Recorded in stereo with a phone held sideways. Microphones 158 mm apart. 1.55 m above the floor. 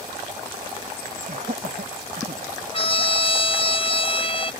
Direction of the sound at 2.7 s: 35° left (ahead or behind).